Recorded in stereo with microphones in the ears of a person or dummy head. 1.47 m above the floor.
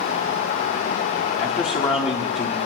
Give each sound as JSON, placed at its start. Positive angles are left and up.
{"t": 1.4, "sound": "a man speaking", "side_deg": 25, "distance_m": 5.0}